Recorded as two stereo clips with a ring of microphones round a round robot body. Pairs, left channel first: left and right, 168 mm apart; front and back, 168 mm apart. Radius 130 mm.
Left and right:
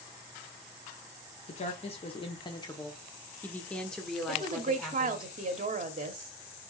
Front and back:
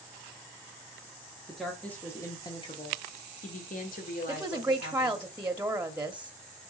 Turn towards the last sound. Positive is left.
turn(degrees=-100)